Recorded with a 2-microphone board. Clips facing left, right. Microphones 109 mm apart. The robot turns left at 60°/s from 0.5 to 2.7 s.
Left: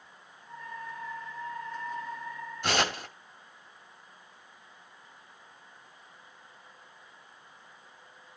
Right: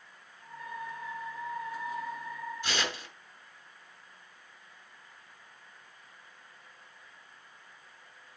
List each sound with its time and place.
2.6 s tearing paper: 60° left (ahead or behind), 2 m; by 3.1 s 65° left (ahead or behind), 2 m